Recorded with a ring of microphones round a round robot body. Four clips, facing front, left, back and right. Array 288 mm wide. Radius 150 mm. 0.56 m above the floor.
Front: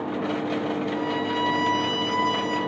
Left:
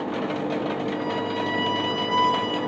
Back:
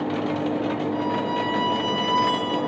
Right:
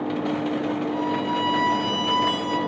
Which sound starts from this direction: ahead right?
A violin, at 0.9 s.